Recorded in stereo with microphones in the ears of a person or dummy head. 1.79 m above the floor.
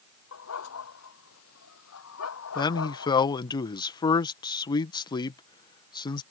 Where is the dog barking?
85° left.